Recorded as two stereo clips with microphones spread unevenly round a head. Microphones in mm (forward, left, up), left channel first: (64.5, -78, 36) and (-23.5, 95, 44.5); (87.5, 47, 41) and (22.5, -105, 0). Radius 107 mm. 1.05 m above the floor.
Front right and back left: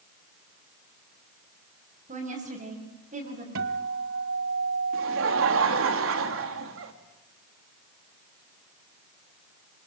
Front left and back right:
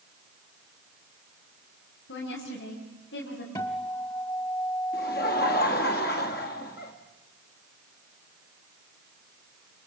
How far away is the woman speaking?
About 6 m.